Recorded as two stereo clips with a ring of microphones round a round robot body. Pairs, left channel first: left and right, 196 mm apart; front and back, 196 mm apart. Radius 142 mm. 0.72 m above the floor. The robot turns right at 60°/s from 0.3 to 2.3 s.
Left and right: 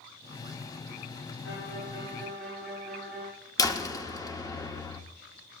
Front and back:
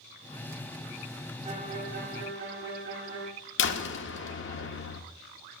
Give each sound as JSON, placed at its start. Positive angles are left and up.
{"t": 1.4, "sound": "a violin", "azimuth_deg": 125, "distance_m": 2.5}
{"t": 3.6, "sound": "a door slam", "azimuth_deg": 15, "distance_m": 1.2}